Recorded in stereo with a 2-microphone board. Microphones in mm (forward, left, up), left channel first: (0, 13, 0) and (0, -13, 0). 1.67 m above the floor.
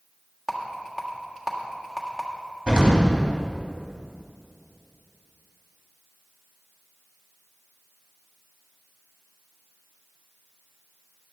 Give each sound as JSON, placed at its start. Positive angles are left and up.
{"t": 0.5, "sound": "a rattle", "side_deg": -5, "distance_m": 1.6}
{"t": 2.7, "sound": "an explosion", "side_deg": -40, "distance_m": 2.5}